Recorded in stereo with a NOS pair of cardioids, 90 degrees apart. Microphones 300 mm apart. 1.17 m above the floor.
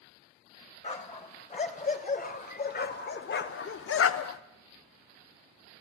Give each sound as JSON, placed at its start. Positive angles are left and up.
{"t": 0.8, "sound": "a dog barking", "azimuth_deg": 25, "distance_m": 3.0}